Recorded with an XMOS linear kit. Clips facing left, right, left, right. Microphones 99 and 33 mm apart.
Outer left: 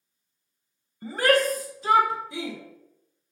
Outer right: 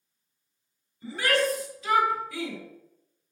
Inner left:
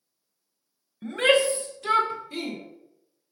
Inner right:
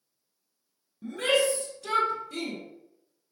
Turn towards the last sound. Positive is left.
turn(degrees=15)  # may be behind; listen again after turning